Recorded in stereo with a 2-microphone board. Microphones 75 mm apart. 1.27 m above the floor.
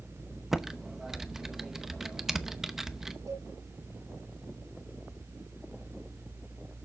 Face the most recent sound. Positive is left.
turn(degrees=-55)  # may be behind; listen again after turning